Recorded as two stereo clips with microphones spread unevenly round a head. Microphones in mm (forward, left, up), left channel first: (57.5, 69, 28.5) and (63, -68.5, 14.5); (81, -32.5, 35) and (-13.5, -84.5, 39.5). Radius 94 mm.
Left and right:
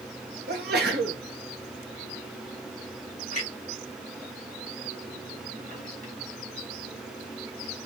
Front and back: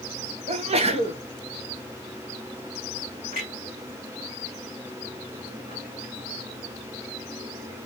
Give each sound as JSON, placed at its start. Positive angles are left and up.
{"t": 0.5, "sound": "a sneeze", "azimuth_deg": -125, "distance_m": 1.0}
{"t": 3.3, "sound": "a clunk", "azimuth_deg": 90, "distance_m": 2.0}